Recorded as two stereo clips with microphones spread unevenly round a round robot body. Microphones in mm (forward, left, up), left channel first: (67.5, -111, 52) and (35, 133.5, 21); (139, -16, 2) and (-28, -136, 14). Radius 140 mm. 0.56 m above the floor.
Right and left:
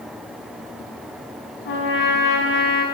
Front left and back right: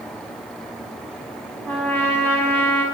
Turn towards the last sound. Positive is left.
turn(degrees=-45)